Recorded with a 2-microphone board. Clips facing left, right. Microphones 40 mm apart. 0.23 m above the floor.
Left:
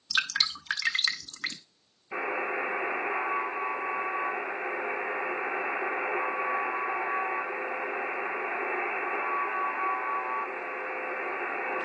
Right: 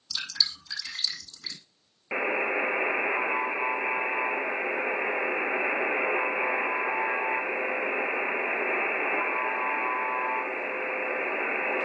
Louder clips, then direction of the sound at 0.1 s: Left 4 dB; 55° left (ahead or behind).